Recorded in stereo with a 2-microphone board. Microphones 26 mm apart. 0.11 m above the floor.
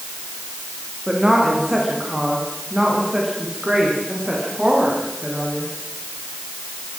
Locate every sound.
1.1 s a woman speaking: 25° right (ahead or behind), 9.5 m